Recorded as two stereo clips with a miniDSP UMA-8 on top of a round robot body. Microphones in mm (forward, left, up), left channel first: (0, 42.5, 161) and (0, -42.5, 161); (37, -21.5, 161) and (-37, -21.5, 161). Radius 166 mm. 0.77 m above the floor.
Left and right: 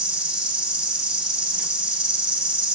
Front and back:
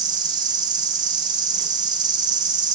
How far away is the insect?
About 1.0 m.